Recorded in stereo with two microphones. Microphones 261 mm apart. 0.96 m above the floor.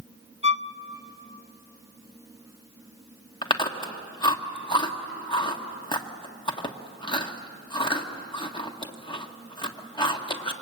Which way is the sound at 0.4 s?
25° right (ahead or behind).